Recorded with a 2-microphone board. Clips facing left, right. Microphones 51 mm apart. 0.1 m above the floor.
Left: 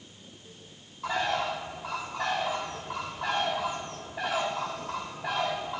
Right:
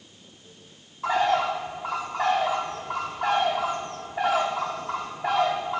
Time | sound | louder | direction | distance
1.0 | a bird | right 6 dB | 15° right (ahead or behind) | 3 m